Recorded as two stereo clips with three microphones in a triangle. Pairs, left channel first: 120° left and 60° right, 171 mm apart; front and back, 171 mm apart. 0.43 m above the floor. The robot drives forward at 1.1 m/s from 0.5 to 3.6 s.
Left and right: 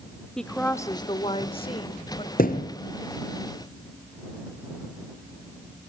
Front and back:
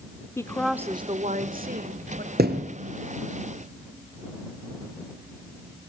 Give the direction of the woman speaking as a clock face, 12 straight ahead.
11 o'clock.